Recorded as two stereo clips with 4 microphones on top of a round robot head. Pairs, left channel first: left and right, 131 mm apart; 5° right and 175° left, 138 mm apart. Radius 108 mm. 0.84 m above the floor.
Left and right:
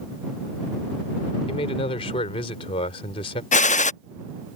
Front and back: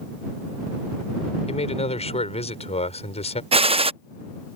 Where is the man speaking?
35° left.